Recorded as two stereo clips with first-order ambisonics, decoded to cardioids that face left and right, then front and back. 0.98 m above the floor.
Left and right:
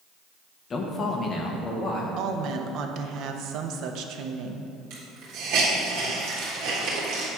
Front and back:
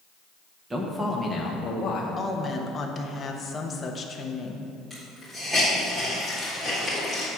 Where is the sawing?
No sawing in this recording.